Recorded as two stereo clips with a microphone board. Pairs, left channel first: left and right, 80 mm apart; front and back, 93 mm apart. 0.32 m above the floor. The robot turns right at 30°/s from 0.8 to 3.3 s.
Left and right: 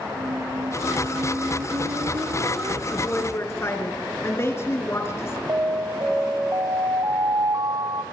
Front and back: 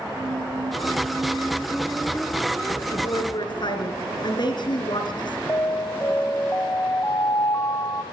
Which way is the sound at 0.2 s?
120° right.